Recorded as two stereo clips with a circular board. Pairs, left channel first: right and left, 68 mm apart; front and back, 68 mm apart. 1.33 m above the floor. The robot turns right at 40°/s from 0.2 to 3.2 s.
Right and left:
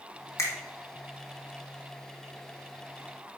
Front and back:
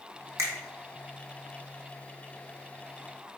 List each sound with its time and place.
0.4 s a finger snap: 135° right, 0.8 m; by 0.5 s 130° right, 0.8 m